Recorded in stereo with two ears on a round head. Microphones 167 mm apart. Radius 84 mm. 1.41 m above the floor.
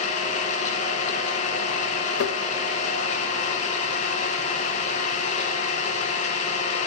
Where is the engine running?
40° left (ahead or behind), 1.2 m.